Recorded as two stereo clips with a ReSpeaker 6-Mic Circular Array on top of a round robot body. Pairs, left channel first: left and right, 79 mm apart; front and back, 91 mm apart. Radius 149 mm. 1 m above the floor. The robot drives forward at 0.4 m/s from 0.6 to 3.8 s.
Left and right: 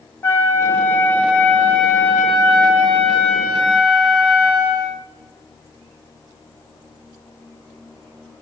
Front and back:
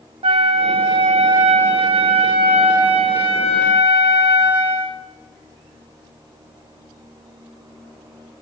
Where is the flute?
155° left, 0.5 m; by 5.0 s 175° left, 1.7 m.